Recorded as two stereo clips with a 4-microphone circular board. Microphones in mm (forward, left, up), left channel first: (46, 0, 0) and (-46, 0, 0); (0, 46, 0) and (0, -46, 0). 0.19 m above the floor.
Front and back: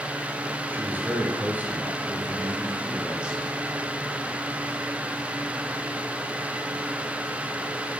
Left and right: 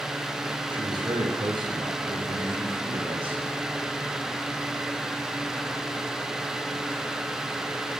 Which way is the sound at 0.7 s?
115° right.